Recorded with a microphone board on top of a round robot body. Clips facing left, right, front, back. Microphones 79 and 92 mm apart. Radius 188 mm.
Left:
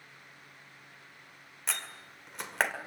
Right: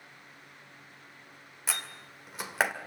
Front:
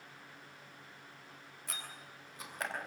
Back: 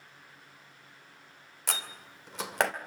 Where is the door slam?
175° right, 2 m.